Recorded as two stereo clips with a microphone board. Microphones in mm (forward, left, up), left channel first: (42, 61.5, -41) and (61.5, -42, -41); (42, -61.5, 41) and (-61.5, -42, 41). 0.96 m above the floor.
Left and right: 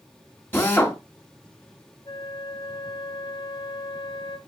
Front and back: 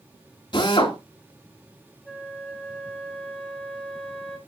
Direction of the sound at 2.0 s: 75° left.